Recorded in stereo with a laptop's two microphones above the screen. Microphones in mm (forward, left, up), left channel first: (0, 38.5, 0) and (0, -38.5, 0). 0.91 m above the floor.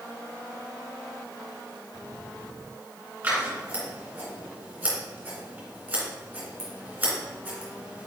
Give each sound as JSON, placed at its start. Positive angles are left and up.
{"t": 3.2, "sound": "scissors", "side_deg": -20, "distance_m": 2.5}